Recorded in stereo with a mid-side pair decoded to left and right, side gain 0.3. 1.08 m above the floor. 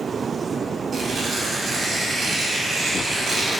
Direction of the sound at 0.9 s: 65° right.